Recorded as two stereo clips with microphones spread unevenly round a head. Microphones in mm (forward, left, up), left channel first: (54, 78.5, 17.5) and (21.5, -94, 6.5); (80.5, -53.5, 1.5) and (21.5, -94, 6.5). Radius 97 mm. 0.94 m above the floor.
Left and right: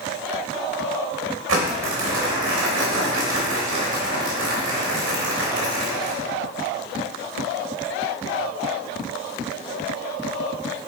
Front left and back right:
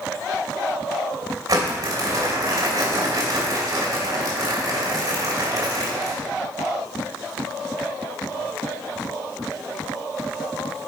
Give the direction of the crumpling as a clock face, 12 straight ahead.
4 o'clock.